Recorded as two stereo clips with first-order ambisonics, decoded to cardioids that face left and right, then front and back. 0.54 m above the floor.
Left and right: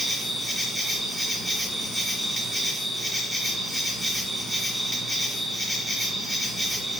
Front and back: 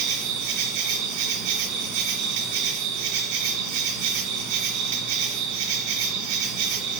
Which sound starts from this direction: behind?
An insect, at 0.0 s.